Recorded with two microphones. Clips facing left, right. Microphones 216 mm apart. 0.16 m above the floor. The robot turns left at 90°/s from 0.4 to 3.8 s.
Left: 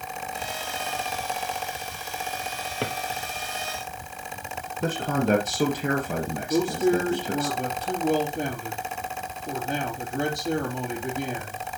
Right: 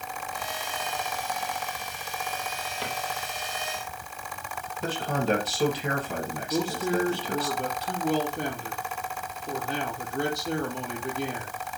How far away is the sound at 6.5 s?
About 4 m.